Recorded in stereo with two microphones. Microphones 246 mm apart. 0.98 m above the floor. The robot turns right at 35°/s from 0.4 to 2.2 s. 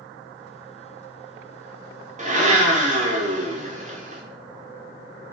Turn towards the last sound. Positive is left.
turn(degrees=-30)  # may be behind; listen again after turning